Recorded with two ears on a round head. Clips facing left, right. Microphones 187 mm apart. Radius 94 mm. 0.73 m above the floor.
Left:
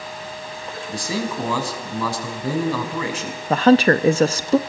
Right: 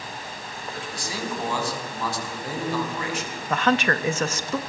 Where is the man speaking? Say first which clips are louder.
Left 7 dB; 65° left (ahead or behind), 5.5 m.